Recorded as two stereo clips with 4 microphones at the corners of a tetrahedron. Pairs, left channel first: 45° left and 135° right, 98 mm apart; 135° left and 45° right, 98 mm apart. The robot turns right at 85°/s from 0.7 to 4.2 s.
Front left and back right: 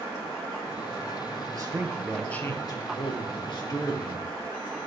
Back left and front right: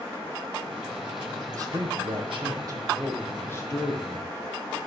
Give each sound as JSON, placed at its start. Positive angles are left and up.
{"t": 1.5, "sound": "a man speaking", "azimuth_deg": -95, "distance_m": 2.5}